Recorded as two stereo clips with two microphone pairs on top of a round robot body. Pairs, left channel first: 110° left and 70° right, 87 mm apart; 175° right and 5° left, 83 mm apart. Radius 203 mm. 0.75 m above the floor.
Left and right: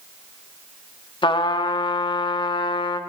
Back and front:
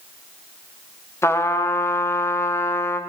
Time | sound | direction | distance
1.2 | a trumpet | 130° left | 0.7 m